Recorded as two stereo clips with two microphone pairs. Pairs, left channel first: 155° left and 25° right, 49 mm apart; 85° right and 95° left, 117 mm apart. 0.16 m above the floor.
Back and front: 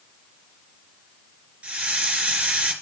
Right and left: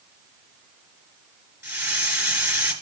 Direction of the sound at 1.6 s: 35° left.